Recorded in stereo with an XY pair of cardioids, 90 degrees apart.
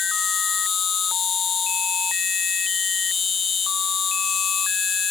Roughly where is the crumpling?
No crumpling in this recording.